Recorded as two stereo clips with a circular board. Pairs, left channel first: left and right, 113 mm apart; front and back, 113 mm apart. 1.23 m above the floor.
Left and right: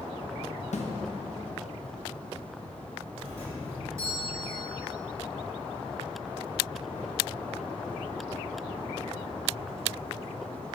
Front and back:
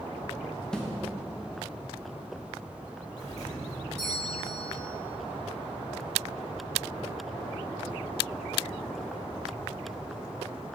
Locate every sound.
0.7 s a snare drum: 85° left, 1.2 m
3.2 s a doorbell: 25° right, 3.5 m